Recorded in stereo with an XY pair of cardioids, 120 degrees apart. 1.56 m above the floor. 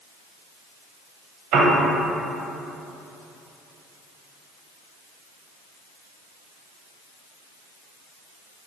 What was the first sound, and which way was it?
A piano, 70° right.